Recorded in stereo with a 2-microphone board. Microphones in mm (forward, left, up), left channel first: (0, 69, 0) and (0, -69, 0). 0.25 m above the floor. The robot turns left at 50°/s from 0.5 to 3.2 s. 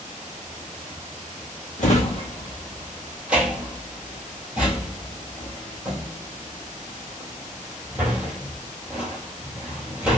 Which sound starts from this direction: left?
A drawer, at 1.8 s.